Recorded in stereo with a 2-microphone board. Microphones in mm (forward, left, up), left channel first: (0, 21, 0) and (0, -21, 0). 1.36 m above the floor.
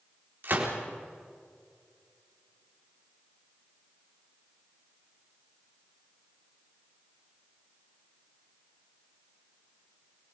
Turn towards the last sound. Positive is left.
turn(degrees=-50)  # may be behind; listen again after turning